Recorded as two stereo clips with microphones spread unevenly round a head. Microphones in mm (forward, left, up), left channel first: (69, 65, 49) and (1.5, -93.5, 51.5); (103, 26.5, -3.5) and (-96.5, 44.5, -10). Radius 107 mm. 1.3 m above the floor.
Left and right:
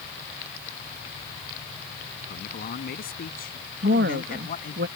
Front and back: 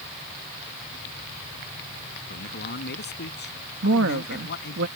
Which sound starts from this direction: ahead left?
A man speaking, at 2.3 s.